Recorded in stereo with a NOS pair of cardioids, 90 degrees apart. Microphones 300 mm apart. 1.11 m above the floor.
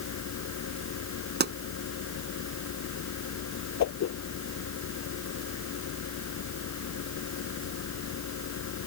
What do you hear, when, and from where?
0.0 s a fan: 70° left
1.4 s a pop: 35° right
3.8 s a whoosh: 70° left